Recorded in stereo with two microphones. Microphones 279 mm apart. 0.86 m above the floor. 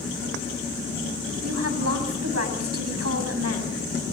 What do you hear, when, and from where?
1.4 s a woman speaking: 60° right (ahead or behind), 7 m